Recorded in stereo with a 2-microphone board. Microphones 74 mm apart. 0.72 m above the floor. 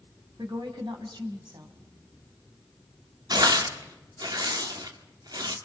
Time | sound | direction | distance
0.4 | a woman speaking | 80° right | 4 m
3.3 | tearing paper | 60° right (ahead or behind) | 2.0 m